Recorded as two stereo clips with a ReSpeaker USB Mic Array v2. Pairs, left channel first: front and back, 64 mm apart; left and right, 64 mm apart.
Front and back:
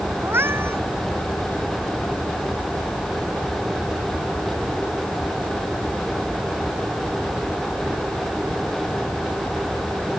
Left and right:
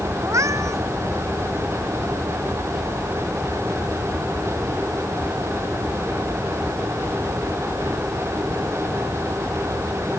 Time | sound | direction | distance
0.2 | a cat meowing | 125° right | ?